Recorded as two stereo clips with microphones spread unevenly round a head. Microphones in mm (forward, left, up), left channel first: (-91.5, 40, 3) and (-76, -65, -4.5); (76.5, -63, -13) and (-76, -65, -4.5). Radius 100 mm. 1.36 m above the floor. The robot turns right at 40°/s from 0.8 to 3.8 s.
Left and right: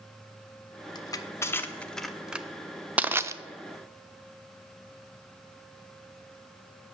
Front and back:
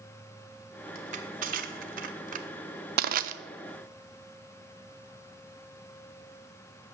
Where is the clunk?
I don't hear a clunk.